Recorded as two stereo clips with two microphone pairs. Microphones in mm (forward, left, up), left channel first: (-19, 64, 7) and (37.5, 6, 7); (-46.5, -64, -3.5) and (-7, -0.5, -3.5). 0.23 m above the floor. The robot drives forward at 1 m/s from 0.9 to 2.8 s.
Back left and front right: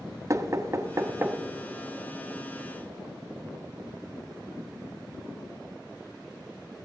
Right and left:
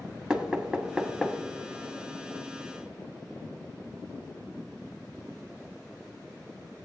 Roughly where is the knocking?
Ahead.